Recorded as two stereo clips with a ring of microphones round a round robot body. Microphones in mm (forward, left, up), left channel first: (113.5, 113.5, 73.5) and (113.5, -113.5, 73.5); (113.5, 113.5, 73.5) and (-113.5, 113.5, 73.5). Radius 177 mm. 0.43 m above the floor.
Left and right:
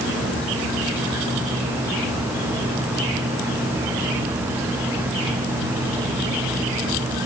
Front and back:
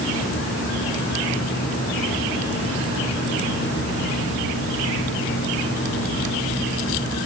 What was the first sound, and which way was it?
Only background noise.